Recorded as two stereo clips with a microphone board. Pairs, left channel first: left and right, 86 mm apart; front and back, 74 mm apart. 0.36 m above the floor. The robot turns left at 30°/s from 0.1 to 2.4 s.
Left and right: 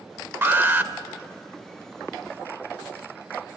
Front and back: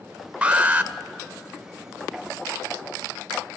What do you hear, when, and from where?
0.4 s an alarm: 120° right, 0.7 m; by 0.9 s 135° right, 0.7 m